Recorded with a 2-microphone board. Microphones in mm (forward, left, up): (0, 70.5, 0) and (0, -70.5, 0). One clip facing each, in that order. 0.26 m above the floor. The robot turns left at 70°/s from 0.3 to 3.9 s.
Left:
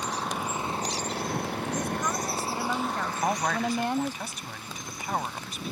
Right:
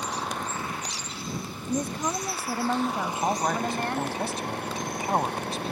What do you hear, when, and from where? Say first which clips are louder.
0.0 s an engine running: even; straight behind; by 5.7 s 70° right
1.7 s a woman speaking: right 5 dB; 55° right; by 4.2 s 150° left
3.2 s a man speaking: right 1 dB; straight ahead; by 5.7 s 50° right